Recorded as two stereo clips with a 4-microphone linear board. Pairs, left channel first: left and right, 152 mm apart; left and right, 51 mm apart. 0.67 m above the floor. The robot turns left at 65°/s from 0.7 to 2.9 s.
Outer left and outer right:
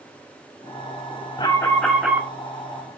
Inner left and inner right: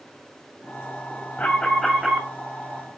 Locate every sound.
1.4 s an alarm: 35° left, 1.9 m; by 2.3 s 25° right, 1.9 m